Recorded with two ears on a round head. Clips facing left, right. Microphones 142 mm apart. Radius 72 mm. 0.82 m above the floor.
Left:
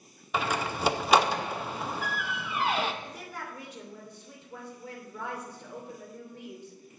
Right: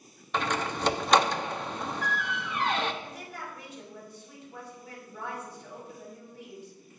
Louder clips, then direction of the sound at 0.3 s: Even; 5° left (ahead or behind).